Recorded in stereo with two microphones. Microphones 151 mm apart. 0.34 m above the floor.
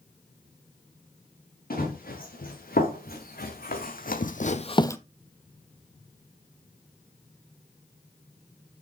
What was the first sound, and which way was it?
Running footsteps, 80° left.